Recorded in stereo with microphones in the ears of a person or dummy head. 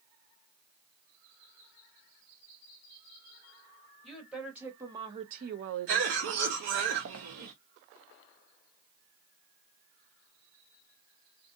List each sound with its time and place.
4.0 s a woman speaking: 5° right (ahead or behind), 1.1 m; by 6.4 s 60° right (ahead or behind), 0.7 m
5.9 s a cough: 60° right (ahead or behind), 0.8 m